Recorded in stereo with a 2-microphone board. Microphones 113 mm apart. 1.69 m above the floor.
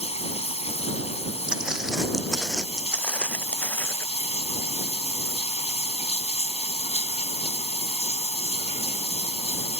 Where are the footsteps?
10° right (ahead or behind); by 4.1 s 20° left (ahead or behind).